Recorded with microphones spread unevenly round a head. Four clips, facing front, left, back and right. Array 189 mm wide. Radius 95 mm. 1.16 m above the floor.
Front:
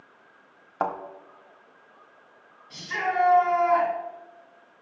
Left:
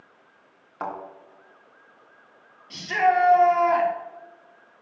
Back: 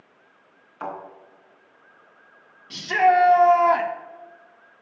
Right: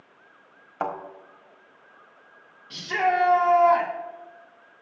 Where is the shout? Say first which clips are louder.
Left 3 dB, back 10 dB; 175° left, 2 m.